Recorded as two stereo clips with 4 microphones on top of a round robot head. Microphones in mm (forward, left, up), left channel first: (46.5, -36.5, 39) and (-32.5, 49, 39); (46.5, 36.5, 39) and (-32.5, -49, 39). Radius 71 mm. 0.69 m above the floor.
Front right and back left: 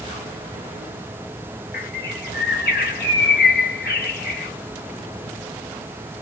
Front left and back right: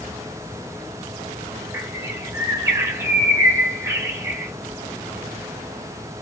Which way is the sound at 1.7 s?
65° right.